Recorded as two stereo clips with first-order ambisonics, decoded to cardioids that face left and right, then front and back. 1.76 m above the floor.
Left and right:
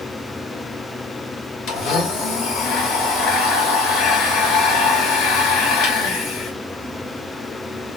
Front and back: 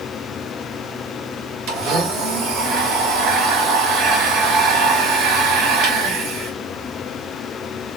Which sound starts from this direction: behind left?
A blender, at 1.7 s.